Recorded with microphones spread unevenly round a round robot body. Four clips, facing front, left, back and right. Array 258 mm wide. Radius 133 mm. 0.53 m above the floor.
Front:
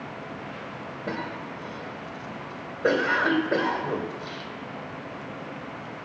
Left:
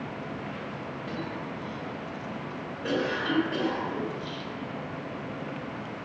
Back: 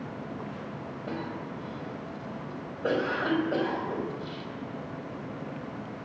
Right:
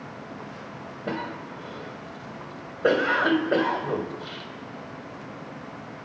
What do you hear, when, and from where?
1.1 s a cough: 60° right, 3.5 m